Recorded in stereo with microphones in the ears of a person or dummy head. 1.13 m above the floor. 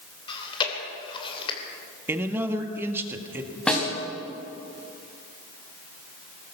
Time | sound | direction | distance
0.3 | chewing | 25° left (ahead or behind) | 2.5 m
2.1 | a man speaking | 10° right (ahead or behind) | 1.5 m
3.7 | a snare drum | centre (ahead or behind) | 3.5 m